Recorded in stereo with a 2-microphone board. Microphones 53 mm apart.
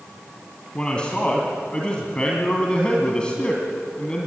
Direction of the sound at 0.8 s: 20° left (ahead or behind).